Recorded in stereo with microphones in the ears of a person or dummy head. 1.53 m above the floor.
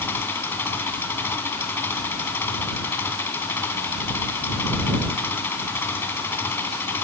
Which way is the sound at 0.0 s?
20° left (ahead or behind).